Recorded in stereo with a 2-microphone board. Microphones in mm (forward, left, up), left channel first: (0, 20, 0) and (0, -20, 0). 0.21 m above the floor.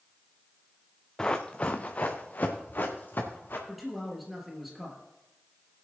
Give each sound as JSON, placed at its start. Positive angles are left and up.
{"t": 1.2, "sound": "running footsteps", "side_deg": 20, "distance_m": 1.2}
{"t": 3.7, "sound": "a man speaking", "side_deg": -5, "distance_m": 4.0}